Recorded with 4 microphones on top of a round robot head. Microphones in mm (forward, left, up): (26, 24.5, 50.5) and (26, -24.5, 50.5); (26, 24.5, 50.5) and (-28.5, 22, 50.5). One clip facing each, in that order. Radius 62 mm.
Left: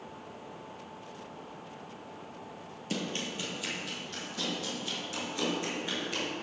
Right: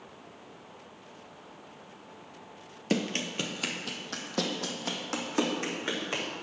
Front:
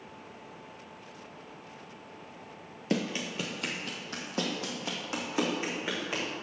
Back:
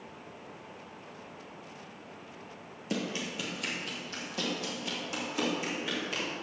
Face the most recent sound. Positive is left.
turn(degrees=-60)